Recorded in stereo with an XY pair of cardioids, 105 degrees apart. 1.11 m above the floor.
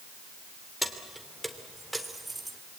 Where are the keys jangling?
5° left, 2.5 m; by 2.6 s 20° right, 2.5 m.